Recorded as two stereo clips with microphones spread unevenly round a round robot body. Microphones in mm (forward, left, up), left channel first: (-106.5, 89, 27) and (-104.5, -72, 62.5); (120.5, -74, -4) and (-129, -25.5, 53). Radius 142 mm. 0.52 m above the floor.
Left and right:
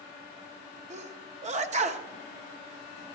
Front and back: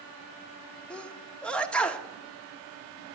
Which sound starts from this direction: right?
A sneeze, at 0.9 s.